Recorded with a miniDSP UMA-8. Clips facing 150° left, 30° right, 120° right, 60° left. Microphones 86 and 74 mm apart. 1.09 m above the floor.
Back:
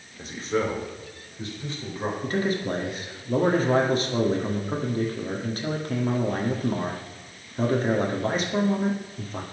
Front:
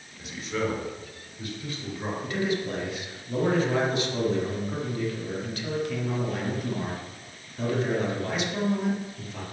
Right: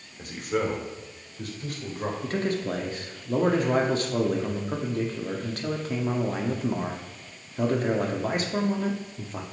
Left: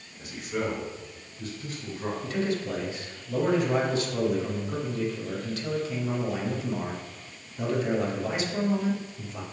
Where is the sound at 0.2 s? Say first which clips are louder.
Back 4 dB, right 3 dB; 160° right, 2.5 m; by 2.1 s 145° right, 4 m.